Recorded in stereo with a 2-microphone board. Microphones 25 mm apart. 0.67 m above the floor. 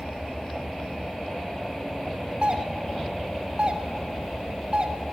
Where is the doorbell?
35° right (ahead or behind), 1.8 m.